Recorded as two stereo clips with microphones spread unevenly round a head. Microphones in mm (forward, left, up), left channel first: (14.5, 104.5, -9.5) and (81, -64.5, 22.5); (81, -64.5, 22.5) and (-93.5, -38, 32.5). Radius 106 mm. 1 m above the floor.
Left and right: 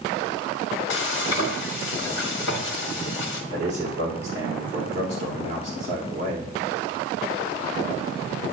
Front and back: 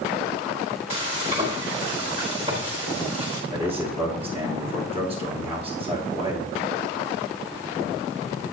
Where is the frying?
110° left, 1.4 m.